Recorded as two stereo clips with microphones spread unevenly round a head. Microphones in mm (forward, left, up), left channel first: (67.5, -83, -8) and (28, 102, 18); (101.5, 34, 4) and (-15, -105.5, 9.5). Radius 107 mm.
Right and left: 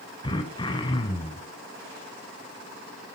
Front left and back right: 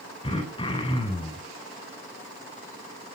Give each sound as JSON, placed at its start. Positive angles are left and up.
{"t": 0.2, "sound": "throat clearing", "azimuth_deg": -10, "distance_m": 3.0}